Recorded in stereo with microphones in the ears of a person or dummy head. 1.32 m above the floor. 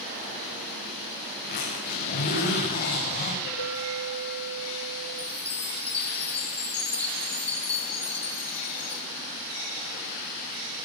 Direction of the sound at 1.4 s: 40° left (ahead or behind).